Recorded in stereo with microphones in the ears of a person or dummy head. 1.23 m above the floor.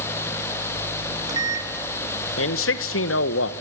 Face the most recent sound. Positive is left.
turn(degrees=65)  # may be behind; listen again after turning